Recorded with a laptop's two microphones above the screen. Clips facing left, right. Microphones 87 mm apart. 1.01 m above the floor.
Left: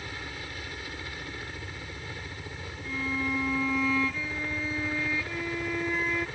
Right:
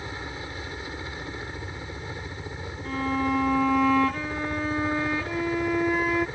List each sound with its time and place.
0.0 s a helicopter: 25° right (ahead or behind)
2.9 s a violin: 55° right (ahead or behind)